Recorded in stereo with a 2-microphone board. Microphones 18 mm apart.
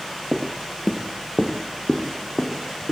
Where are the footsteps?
10° right (ahead or behind), 1.4 m; by 2.9 s 50° left (ahead or behind), 3.5 m.